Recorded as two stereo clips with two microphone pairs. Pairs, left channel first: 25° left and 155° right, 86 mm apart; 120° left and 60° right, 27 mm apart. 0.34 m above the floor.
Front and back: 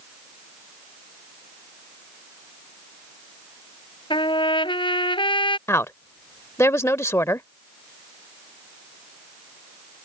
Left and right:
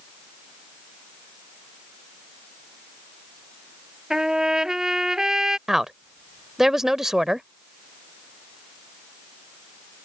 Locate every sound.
4.1 s a trumpet: 15° left
5.7 s a woman speaking: 10° left